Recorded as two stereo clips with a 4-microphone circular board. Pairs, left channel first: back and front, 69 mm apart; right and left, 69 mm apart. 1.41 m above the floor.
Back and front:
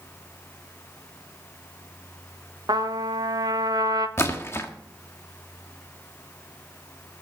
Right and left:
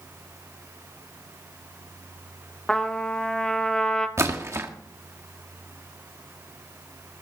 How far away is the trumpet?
About 1.1 m.